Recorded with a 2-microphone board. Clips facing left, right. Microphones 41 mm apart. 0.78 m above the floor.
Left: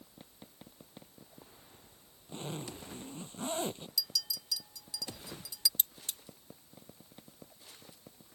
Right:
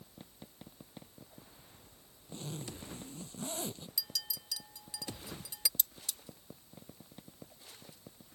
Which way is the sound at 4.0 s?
30° right (ahead or behind).